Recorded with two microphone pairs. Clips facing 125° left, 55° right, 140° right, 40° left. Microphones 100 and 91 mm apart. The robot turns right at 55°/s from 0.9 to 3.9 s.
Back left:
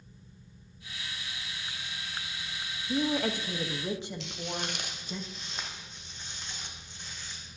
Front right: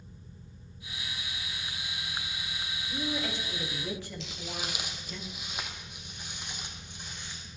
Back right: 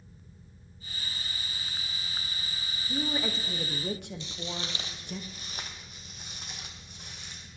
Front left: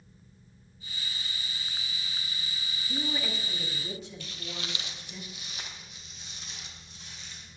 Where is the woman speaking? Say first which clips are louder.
Back left 6 dB, back right 3 dB; 140° left, 1.4 m; by 5.2 s 165° right, 1.4 m.